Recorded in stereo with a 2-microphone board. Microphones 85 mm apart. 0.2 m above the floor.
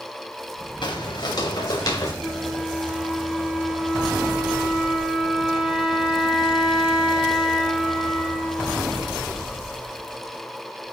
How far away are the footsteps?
About 1.7 m.